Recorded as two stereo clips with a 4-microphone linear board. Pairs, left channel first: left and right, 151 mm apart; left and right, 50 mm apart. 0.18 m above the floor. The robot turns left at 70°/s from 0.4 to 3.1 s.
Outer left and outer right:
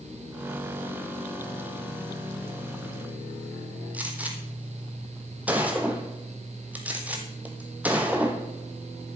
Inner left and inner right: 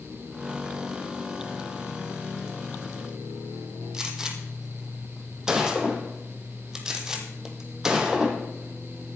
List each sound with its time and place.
3.9 s a gunshot: 10° right (ahead or behind), 1.9 m